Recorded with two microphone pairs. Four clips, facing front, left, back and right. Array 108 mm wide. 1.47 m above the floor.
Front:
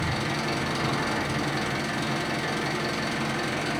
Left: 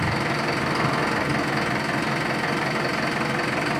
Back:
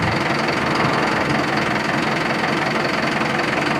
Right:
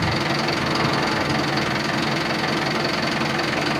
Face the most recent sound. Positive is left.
turn(degrees=-170)